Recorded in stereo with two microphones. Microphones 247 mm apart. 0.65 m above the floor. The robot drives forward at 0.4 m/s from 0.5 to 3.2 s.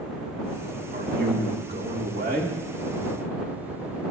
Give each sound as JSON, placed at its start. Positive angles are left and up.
{"t": 0.9, "sound": "a man speaking", "side_deg": -40, "distance_m": 1.4}